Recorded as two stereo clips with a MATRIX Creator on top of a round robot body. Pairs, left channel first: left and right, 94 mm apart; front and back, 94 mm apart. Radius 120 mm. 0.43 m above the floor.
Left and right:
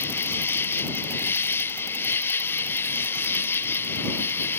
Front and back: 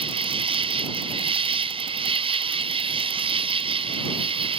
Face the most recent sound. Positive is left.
turn(degrees=160)